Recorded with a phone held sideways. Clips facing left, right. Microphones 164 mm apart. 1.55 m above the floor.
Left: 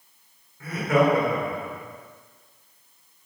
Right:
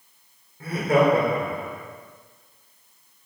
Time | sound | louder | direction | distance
0.6 | laughter | right 2 dB | 30° right (ahead or behind) | 4.5 m